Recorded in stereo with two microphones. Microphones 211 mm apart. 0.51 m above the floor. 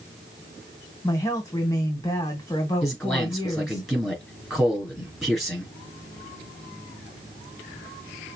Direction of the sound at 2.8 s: Centre (ahead or behind).